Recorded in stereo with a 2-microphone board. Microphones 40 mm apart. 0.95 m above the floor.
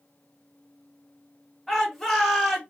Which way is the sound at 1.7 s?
Centre (ahead or behind).